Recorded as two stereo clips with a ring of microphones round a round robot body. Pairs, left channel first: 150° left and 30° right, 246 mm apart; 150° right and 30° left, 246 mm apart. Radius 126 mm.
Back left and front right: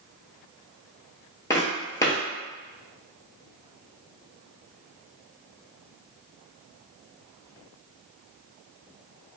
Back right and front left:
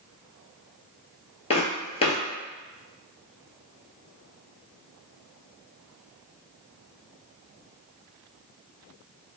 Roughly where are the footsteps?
Behind right.